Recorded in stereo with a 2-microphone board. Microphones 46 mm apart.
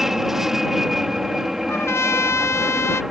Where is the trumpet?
65° left (ahead or behind).